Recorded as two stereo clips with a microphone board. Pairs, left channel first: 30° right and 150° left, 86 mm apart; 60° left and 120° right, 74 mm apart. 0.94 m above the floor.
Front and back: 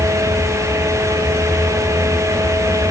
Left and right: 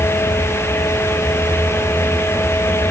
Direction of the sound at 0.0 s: 30° left.